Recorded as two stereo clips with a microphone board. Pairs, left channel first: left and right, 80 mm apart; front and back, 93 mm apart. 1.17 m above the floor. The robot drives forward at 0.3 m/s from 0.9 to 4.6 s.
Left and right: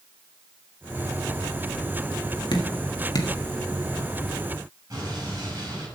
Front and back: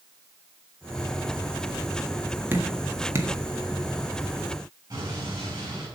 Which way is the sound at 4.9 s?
140° right.